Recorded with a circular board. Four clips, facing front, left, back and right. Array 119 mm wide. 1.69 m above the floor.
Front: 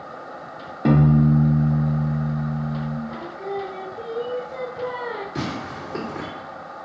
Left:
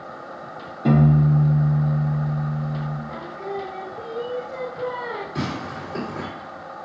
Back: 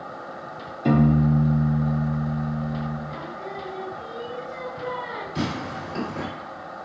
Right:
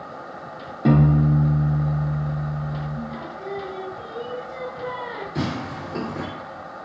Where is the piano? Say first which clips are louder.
Even, front 2 dB; 20° right, 0.9 m.